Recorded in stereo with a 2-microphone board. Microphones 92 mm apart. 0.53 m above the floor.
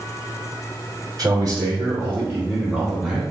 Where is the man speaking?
45° right (ahead or behind), 1.6 m; by 3.2 s 10° right (ahead or behind), 1.8 m.